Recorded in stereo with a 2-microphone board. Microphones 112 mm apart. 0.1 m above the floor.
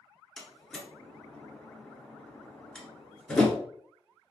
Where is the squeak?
No squeak in this recording.